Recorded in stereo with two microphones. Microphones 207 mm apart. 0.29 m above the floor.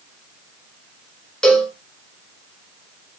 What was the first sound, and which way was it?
A cowbell, 5° left (ahead or behind).